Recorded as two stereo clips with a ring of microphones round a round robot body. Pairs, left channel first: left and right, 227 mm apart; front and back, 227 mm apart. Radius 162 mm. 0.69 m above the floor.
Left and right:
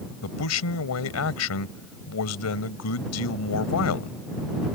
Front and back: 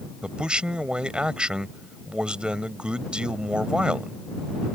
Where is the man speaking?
95° left.